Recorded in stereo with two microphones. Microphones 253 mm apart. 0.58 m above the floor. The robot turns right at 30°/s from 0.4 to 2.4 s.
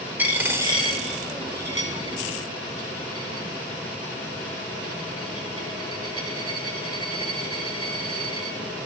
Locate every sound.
0.2 s a dropped coin: 5° right (ahead or behind), 1.0 m; by 8.6 s 65° right (ahead or behind), 1.0 m